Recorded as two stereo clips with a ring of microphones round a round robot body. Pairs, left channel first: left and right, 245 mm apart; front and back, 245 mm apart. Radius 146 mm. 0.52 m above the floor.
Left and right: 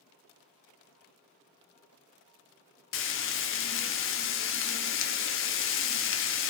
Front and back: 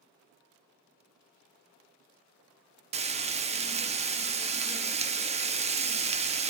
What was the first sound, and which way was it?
Frying, 115° left.